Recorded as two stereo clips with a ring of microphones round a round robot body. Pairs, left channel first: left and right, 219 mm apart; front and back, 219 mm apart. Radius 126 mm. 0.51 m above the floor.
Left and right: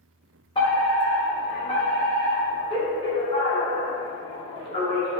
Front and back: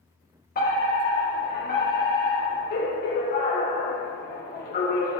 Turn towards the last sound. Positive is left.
turn(degrees=30)